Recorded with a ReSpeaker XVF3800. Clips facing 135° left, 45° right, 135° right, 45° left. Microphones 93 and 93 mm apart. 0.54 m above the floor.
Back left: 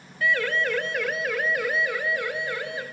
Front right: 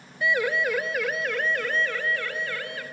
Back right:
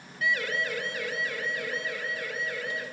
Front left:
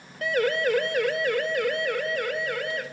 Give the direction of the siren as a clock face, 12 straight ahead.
11 o'clock.